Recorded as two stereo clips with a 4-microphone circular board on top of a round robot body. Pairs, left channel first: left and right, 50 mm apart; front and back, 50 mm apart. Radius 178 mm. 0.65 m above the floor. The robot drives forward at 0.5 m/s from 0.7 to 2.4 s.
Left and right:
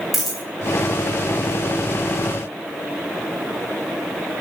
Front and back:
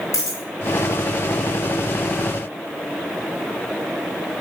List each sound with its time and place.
0.1 s a dropped coin: straight ahead, 1.4 m